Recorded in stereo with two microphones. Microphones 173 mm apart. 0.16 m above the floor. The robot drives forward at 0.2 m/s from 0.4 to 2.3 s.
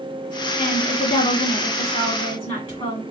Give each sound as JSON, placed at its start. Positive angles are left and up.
{"t": 0.6, "sound": "a woman speaking", "side_deg": 35, "distance_m": 2.0}